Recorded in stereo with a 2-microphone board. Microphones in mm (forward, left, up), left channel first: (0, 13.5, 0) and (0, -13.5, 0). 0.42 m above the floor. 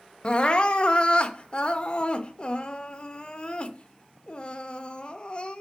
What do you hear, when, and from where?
0.2 s crying: 35° left (ahead or behind), 0.6 m